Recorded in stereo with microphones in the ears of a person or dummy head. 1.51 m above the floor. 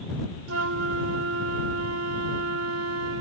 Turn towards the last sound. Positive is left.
turn(degrees=-85)